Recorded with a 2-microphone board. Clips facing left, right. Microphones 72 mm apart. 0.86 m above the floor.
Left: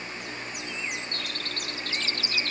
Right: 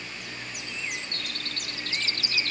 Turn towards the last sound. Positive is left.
No sound to turn to.